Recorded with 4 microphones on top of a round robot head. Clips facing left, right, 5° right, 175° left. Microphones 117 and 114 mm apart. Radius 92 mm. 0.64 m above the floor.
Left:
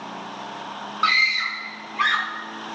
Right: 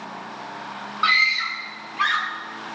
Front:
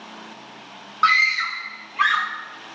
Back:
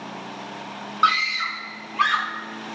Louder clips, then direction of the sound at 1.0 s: Right 1 dB, front 1 dB; 105° left.